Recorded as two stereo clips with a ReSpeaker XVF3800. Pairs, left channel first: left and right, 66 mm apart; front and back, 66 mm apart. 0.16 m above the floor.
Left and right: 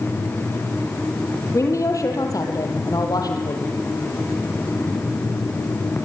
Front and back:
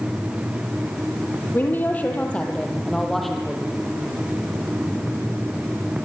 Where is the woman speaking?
55° left, 5 m; by 3.7 s 95° left, 5 m.